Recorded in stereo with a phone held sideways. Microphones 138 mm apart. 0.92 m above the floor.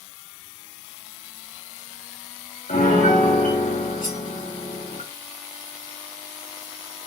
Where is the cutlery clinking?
75° left (ahead or behind), 0.8 m.